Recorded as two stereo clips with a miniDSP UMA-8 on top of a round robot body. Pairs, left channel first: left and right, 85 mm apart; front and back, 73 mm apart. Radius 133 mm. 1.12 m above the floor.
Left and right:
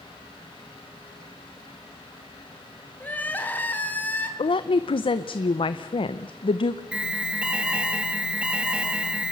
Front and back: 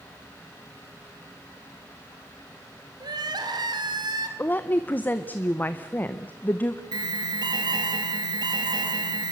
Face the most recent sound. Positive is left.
turn(degrees=-170)